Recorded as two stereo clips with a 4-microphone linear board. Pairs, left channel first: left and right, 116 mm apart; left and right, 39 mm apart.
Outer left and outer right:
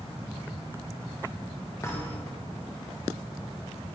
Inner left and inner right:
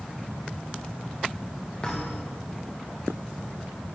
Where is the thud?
25° left (ahead or behind), 8 m.